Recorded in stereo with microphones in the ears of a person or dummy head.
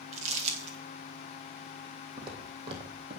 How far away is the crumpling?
About 1.9 m.